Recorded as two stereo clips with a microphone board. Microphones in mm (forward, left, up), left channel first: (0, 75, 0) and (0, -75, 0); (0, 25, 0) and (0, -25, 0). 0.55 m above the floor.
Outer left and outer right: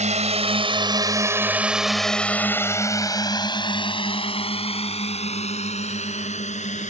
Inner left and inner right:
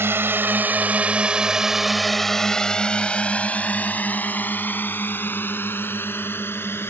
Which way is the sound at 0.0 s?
50° right (ahead or behind).